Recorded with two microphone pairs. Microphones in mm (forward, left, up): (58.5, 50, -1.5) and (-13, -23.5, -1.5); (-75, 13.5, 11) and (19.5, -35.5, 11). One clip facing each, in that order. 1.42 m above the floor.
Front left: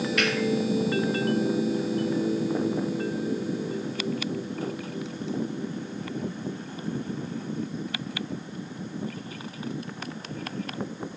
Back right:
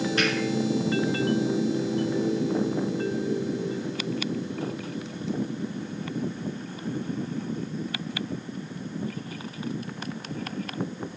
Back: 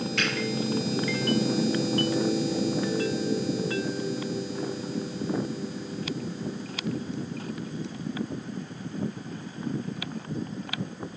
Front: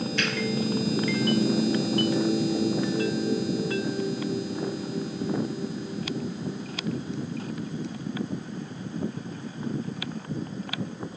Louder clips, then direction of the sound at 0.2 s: Back right 1 dB, back 1 dB; 165° left.